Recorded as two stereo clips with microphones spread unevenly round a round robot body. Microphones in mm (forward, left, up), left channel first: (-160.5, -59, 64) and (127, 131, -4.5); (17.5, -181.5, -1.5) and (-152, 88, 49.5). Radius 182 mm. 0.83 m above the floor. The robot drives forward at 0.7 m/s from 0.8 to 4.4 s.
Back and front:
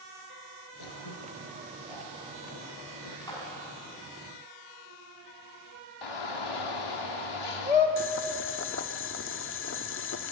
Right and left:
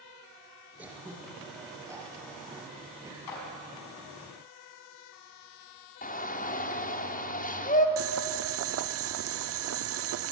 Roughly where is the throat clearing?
Behind right.